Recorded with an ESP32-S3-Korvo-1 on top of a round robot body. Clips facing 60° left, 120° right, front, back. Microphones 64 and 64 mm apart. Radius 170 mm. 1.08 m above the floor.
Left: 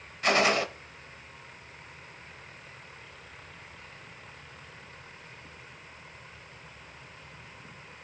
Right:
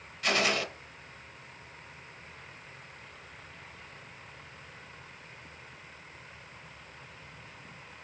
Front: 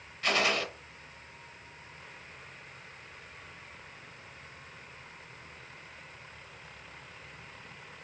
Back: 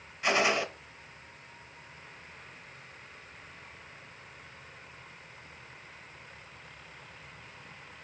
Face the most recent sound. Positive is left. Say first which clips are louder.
# left 4 dB, back 2 dB
turn(degrees=115)